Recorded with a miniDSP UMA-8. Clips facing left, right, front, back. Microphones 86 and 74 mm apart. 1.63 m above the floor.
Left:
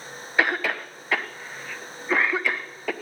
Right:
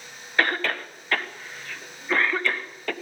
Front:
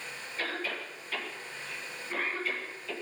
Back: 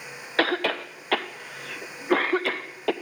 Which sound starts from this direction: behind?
A cough, at 0.4 s.